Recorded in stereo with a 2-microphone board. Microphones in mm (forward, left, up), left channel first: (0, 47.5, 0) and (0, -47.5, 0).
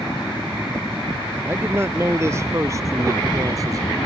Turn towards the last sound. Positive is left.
turn(degrees=-40)  # may be behind; listen again after turning